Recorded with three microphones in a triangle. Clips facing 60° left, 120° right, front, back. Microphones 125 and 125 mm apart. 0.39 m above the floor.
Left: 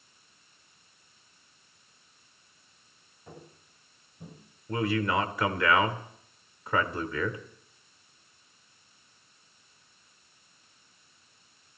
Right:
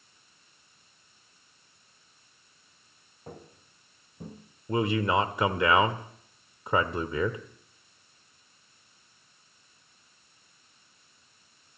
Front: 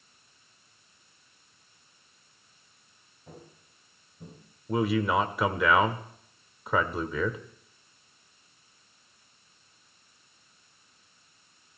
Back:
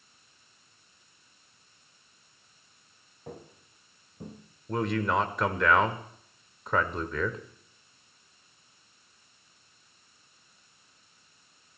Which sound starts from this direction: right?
A man speaking, at 4.7 s.